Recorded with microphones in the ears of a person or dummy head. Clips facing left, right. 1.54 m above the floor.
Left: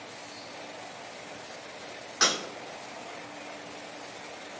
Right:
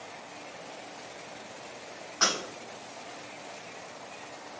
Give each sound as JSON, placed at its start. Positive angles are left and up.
{"t": 2.2, "sound": "breaking glass", "side_deg": 30, "distance_m": 1.9}